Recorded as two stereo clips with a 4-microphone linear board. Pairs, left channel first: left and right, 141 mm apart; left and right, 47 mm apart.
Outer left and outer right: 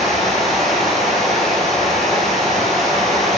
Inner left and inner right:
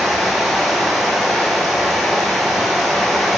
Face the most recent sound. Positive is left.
turn(degrees=0)  # may be behind; listen again after turning